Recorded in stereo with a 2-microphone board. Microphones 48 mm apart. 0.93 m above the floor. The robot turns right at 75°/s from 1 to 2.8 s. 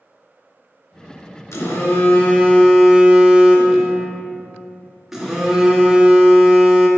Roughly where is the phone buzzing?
Left.